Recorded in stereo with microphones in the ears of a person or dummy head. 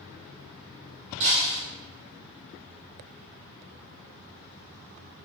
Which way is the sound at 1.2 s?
40° right (ahead or behind).